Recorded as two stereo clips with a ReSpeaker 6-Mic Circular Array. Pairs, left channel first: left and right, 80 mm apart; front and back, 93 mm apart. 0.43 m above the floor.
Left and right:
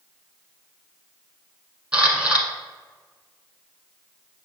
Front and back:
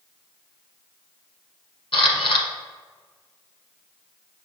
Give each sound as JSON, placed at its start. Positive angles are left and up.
{"t": 1.9, "sound": "a camera shutter", "azimuth_deg": -15, "distance_m": 1.1}